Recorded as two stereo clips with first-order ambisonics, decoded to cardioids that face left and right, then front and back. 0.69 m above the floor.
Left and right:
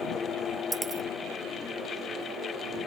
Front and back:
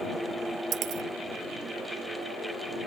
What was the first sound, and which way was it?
A dropped coin, 160° right.